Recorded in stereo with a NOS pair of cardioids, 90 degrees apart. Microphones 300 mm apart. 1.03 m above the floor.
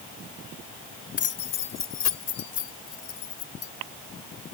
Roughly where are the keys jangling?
Ahead left.